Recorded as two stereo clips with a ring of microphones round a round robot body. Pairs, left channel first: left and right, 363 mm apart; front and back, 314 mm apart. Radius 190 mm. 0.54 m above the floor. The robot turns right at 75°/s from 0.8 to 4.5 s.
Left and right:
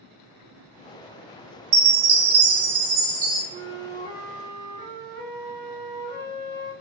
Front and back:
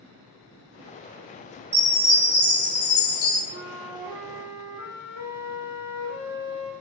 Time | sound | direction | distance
1.7 | a chime | 110° right | 0.7 m
3.5 | a flute | 120° right | 1.1 m